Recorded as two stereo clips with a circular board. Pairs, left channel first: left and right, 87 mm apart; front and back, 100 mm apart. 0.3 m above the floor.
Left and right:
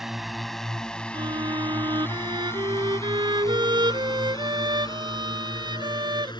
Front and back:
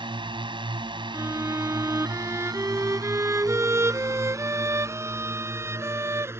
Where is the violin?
120° right.